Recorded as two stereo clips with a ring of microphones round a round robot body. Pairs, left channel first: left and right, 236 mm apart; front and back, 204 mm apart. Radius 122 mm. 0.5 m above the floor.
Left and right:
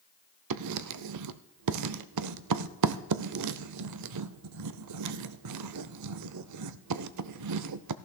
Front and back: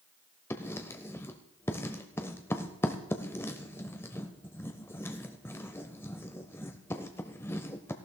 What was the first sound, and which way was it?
Writing, 80° right.